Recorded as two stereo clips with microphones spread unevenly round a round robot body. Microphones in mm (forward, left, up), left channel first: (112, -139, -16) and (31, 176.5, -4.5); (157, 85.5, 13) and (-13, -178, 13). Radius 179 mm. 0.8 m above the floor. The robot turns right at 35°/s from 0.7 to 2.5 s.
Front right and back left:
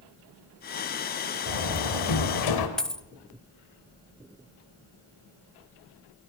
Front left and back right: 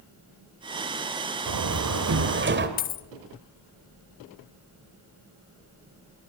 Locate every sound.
1.5 s a door slam: 105° right, 3 m; by 2.7 s 65° right, 3 m
2.8 s a dropped coin: 15° left, 0.7 m